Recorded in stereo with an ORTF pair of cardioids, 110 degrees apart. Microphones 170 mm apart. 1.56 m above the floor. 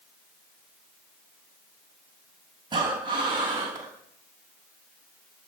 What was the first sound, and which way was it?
Breathing, 25° right.